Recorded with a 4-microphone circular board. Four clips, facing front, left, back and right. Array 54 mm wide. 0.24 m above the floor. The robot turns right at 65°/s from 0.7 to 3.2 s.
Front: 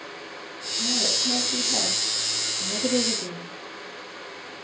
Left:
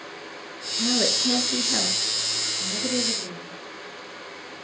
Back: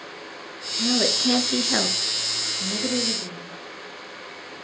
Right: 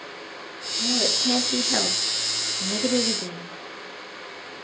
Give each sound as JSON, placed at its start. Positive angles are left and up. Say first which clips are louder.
{"t": 0.8, "sound": "a woman speaking", "louder": "left 1 dB, back 5 dB", "azimuth_deg": 135, "distance_m": 2.5}